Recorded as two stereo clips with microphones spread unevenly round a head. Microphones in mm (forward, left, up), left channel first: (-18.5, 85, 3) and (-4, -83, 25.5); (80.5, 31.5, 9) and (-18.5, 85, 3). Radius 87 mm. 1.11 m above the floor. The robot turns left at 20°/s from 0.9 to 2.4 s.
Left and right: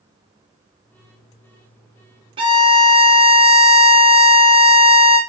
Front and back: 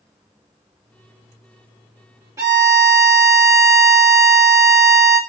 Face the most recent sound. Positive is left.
turn(degrees=-145)